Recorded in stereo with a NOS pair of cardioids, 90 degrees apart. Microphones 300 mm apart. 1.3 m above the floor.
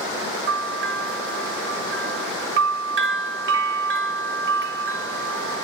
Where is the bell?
45° right, 0.6 m.